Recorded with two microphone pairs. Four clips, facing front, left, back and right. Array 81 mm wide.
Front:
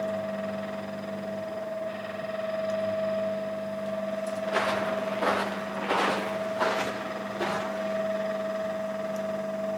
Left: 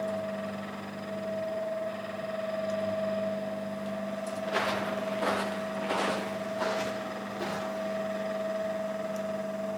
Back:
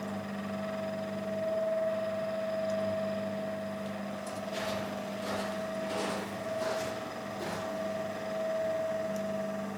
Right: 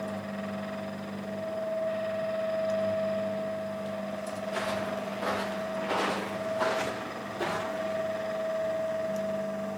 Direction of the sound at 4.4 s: 30° left.